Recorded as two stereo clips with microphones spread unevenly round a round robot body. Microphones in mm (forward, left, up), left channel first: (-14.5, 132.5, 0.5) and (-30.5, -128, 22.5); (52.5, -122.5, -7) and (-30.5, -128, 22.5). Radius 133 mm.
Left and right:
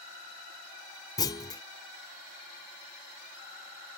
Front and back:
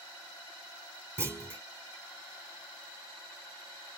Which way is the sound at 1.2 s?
115° left.